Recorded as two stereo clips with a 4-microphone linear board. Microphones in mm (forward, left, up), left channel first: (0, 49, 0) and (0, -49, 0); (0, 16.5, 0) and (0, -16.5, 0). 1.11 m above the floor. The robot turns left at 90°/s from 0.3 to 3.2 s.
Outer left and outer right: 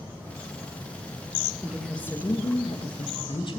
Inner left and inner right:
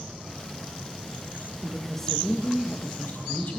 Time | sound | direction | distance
1.6 | a woman speaking | 160° right | 1.4 m